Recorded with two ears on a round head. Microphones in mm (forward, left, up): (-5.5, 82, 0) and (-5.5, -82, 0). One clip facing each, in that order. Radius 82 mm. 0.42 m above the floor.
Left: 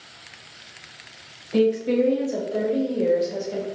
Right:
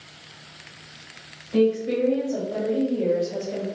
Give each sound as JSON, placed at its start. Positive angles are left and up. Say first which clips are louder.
{"t": 1.5, "sound": "a woman speaking", "louder": "left 1 dB", "side_deg": 35, "distance_m": 1.1}